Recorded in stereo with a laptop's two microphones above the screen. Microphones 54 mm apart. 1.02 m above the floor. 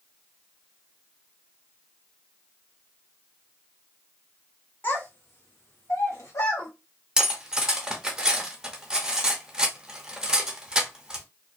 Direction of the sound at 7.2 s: 15° right (ahead or behind).